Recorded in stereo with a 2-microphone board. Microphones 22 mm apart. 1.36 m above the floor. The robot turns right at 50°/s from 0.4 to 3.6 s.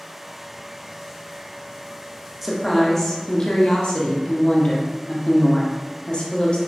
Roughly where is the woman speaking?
Ahead.